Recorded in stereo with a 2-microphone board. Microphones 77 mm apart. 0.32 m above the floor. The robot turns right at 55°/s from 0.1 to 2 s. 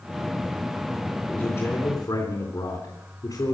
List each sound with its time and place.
1.3 s a man speaking: 35° left, 3.5 m; by 3.5 s 75° left, 3.5 m